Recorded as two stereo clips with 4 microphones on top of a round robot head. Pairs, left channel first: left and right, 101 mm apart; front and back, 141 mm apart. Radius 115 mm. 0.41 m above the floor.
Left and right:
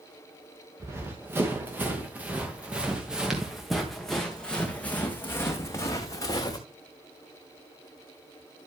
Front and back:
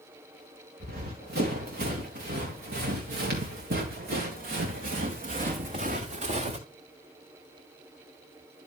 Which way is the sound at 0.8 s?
155° right.